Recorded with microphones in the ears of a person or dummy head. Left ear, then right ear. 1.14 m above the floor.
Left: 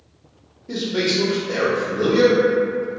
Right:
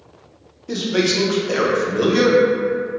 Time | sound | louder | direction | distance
0.7 | a man speaking | right 2 dB | 45° right (ahead or behind) | 0.6 m